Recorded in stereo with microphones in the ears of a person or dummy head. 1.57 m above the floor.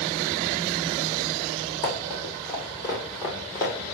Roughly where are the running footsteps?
Left.